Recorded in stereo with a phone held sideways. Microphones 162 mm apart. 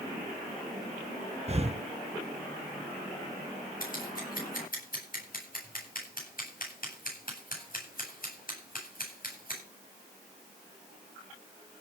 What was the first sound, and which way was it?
Breathing, 40° right (ahead or behind).